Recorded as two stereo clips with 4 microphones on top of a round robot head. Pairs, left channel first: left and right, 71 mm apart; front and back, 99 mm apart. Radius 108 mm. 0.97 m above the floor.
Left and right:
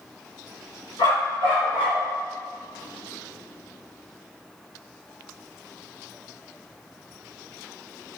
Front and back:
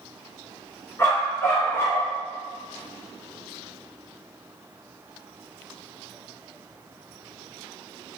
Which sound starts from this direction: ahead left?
A dog barking, at 1.0 s.